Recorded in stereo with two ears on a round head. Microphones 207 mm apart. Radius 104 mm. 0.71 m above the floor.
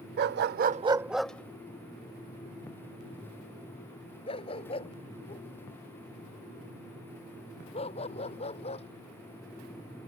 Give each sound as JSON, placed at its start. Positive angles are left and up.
{"t": 0.2, "sound": "a dog barking", "side_deg": -45}